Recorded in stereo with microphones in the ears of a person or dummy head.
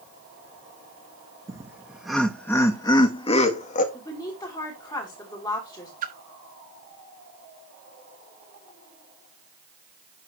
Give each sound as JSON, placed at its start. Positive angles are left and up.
{"t": 1.5, "sound": "laughter", "side_deg": -5, "distance_m": 1.2}
{"t": 3.9, "sound": "a woman speaking", "side_deg": 30, "distance_m": 3.0}
{"t": 6.0, "sound": "a splash", "side_deg": -35, "distance_m": 0.6}